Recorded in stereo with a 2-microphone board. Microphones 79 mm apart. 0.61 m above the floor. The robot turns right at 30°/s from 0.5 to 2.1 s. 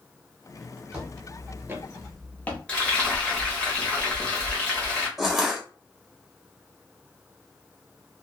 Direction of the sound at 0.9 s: 15° right (ahead or behind).